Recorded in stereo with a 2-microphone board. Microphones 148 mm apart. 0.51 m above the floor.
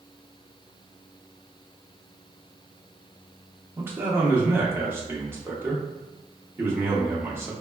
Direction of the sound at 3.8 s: 15° right (ahead or behind).